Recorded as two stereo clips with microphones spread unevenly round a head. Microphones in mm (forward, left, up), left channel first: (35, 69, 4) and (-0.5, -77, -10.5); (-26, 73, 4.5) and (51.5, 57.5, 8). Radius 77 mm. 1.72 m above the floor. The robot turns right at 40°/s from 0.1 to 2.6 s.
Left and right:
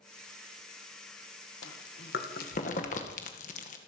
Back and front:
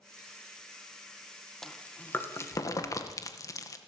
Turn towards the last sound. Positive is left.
turn(degrees=120)